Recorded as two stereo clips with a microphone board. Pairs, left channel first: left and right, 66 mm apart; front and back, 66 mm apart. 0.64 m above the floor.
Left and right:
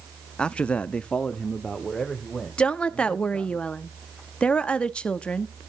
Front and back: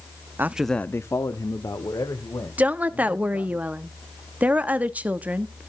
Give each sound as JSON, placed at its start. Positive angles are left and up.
{"t": 0.4, "sound": "a man speaking", "azimuth_deg": 155, "distance_m": 0.6}
{"t": 2.6, "sound": "a woman speaking", "azimuth_deg": 140, "distance_m": 0.9}